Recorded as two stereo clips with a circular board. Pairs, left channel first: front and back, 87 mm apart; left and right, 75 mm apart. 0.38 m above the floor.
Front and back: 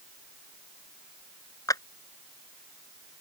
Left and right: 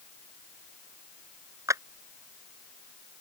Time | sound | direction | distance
1.7 | a clap | 45° right | ?